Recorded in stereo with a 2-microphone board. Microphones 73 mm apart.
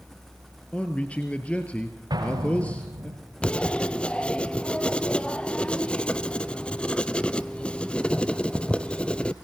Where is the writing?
15° left (ahead or behind), 0.7 m.